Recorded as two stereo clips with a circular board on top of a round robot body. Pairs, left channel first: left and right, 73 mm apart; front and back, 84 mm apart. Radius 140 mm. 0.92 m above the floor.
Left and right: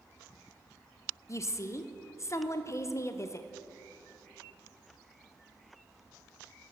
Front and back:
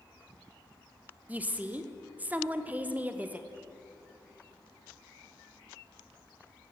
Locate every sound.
1.3 s a woman speaking: 115° left, 0.7 m